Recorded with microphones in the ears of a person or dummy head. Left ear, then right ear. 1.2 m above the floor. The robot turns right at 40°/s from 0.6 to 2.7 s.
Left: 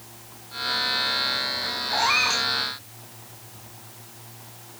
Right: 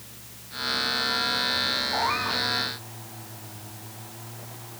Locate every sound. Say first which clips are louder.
1.9 s a cat meowing: left 4 dB; 80° left; by 2.5 s 60° left (ahead or behind)